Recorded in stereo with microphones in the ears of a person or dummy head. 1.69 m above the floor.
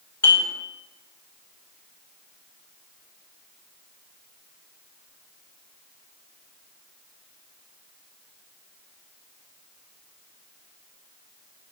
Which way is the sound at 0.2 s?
15° left (ahead or behind).